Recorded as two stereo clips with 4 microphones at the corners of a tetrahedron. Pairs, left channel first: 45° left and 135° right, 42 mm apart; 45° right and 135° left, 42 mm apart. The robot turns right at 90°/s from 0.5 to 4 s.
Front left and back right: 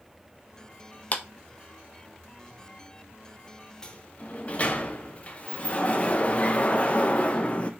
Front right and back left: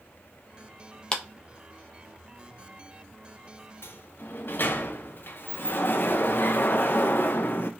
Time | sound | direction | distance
1.1 | a clap | 20° left | 0.6 m
3.8 | a sliding door | 30° right | 0.6 m